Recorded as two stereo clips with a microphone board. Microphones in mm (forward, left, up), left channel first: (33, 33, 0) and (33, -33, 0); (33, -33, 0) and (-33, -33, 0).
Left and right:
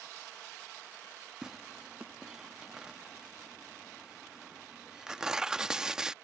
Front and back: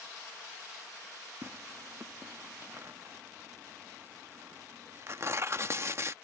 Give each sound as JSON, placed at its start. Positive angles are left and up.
{"t": 1.4, "sound": "tearing paper", "azimuth_deg": -165}